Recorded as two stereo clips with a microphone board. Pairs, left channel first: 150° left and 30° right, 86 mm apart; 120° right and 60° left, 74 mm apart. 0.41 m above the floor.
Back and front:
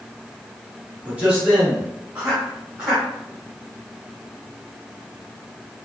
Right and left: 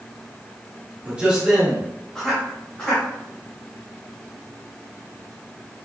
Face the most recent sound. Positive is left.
turn(degrees=-100)